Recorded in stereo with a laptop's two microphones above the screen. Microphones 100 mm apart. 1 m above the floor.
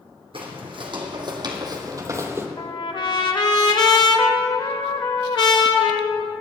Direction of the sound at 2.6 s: 50° left (ahead or behind).